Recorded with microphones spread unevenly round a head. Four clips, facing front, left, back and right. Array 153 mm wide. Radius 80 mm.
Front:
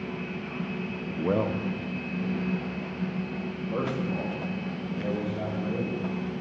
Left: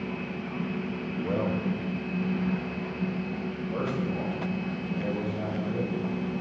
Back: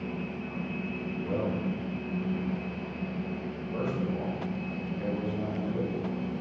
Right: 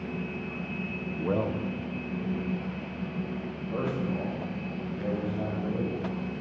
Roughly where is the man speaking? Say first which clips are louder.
Even, front 5 dB; ahead.